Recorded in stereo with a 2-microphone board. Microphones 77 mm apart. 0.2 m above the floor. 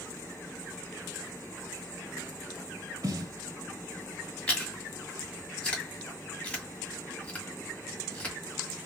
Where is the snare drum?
45° right (ahead or behind), 0.9 m.